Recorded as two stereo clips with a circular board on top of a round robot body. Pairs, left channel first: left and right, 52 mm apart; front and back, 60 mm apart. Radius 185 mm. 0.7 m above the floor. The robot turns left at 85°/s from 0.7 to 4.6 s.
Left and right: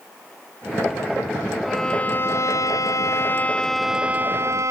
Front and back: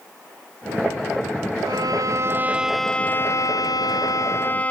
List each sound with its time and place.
1.6 s a violin: 175° right; by 4.7 s 65° right